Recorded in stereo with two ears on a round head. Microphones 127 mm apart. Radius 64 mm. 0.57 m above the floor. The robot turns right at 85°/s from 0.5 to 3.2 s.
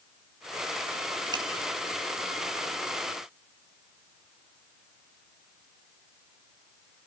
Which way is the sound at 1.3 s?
30° right (ahead or behind).